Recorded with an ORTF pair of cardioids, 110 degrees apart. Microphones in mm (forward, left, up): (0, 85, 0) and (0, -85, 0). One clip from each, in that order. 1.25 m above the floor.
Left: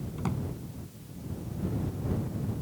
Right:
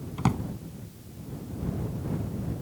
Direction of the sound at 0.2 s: 50° right.